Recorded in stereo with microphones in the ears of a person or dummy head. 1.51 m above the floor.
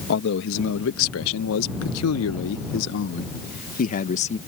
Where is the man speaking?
60° left (ahead or behind); by 4.4 s 35° left (ahead or behind).